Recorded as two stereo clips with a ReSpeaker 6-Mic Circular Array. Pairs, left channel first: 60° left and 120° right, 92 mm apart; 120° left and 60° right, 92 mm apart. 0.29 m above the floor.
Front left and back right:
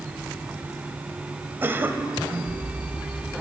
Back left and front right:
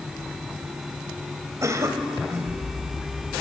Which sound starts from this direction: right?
A cough, at 1.6 s.